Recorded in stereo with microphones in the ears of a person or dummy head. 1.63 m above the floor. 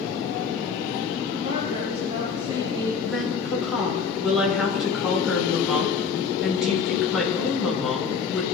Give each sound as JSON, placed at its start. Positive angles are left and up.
{"t": 1.4, "sound": "a woman speaking", "side_deg": -35, "distance_m": 9.5}
{"t": 3.0, "sound": "a woman speaking", "side_deg": -5, "distance_m": 7.0}